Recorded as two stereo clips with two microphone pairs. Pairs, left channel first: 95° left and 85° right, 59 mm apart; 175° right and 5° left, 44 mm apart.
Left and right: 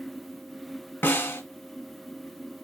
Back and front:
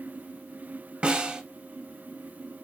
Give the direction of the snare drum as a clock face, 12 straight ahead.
10 o'clock.